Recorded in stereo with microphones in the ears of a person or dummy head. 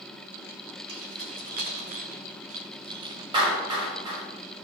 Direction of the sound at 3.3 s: 25° right (ahead or behind).